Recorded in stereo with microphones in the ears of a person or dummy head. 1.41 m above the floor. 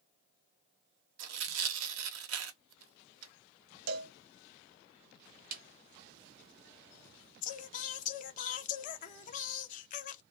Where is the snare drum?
40° right (ahead or behind), 0.6 m.